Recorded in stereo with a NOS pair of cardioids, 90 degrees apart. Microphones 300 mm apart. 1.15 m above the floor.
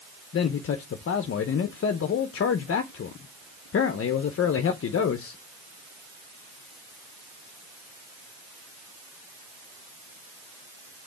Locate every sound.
0.3 s a man speaking: 45° left, 0.8 m